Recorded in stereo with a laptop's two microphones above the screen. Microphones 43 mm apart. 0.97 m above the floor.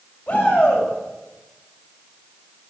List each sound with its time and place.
0.3 s a shout: 35° left (ahead or behind), 6 m